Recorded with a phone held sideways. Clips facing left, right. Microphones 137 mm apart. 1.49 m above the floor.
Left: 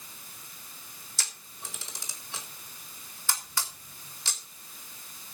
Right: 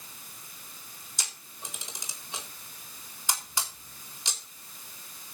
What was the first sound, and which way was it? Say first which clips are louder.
A camera shutter: right 1 dB; 20° right (ahead or behind).